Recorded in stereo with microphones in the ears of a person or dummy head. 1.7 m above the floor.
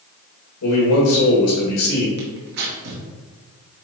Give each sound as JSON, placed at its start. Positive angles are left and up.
{"t": 0.6, "sound": "a man speaking", "side_deg": 75, "distance_m": 3.0}
{"t": 2.2, "sound": "tearing paper", "side_deg": -55, "distance_m": 1.8}